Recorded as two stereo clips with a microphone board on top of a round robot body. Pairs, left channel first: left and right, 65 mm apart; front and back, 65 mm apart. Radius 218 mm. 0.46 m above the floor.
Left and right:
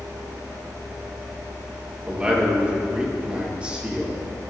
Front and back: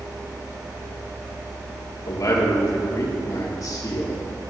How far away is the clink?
I don't hear a clink.